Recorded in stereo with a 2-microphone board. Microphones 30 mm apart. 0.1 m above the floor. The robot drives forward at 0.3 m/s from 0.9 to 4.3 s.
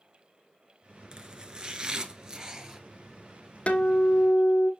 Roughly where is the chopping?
Right.